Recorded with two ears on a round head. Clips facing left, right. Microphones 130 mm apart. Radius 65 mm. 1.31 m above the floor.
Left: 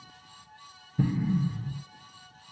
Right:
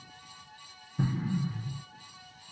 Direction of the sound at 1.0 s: 25° left (ahead or behind).